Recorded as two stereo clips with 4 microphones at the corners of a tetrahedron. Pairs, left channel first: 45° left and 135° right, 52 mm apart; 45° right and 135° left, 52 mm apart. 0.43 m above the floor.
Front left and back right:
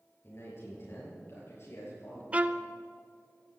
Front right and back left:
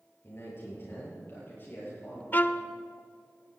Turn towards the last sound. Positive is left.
turn(degrees=-85)